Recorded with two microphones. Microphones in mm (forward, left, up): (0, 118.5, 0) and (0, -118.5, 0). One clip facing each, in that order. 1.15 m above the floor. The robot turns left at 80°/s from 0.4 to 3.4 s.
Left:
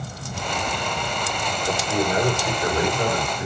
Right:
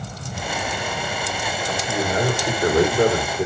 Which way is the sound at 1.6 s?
30° left.